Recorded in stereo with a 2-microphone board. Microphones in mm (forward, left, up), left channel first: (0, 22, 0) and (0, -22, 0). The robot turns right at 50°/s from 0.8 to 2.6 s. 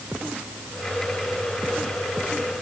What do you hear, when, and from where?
Only background noise.